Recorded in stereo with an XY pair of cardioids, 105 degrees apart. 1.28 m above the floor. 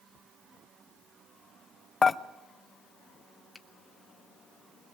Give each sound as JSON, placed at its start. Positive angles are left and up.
{"t": 2.0, "sound": "dishes clattering", "azimuth_deg": 35, "distance_m": 0.7}
{"t": 3.5, "sound": "a finger snap", "azimuth_deg": 15, "distance_m": 1.8}